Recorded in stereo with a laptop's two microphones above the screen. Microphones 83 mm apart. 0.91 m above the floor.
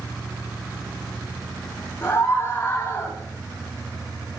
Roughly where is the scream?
Left.